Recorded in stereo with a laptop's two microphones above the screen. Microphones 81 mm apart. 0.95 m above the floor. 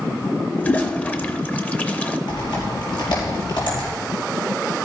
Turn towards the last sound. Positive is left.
turn(degrees=70)  # may be behind; listen again after turning